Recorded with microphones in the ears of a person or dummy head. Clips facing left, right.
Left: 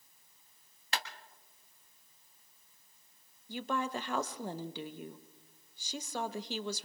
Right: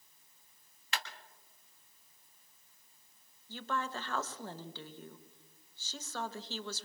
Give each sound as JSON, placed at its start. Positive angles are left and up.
{"t": 0.9, "sound": "a clap", "side_deg": 40, "distance_m": 1.4}
{"t": 3.5, "sound": "a woman speaking", "side_deg": 20, "distance_m": 0.7}